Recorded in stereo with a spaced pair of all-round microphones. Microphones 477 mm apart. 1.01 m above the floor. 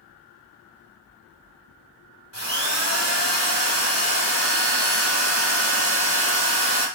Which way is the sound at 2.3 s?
30° right (ahead or behind).